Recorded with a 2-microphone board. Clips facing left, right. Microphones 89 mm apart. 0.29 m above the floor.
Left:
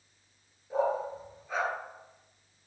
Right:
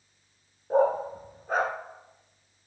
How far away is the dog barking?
About 1.1 m.